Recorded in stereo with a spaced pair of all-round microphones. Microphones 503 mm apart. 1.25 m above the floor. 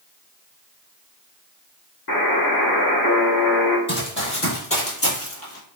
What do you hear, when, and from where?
2.1 s a buzzer: 45° left (ahead or behind), 0.8 m
3.9 s running footsteps: 25° left (ahead or behind), 1.6 m; by 5.8 s 30° left (ahead or behind), 1.4 m